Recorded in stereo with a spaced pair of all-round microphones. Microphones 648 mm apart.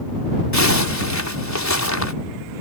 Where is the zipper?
25° left (ahead or behind).